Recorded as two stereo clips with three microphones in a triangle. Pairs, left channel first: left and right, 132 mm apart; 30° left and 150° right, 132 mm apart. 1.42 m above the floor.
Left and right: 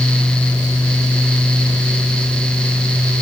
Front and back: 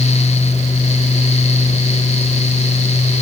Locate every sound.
Only background noise.